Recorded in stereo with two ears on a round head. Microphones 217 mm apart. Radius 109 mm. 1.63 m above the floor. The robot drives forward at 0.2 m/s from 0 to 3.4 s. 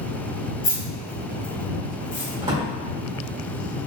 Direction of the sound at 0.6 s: 60° left (ahead or behind).